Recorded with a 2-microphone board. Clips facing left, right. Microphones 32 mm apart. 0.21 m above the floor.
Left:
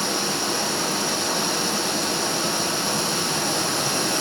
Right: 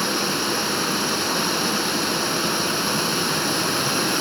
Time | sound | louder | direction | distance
0.0 | running water | right 2 dB | 20° right (ahead or behind) | 0.9 m